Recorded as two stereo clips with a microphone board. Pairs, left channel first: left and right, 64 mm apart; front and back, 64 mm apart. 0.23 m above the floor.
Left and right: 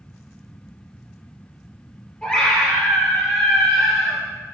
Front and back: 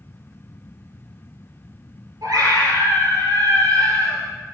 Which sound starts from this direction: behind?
A scream, at 2.2 s.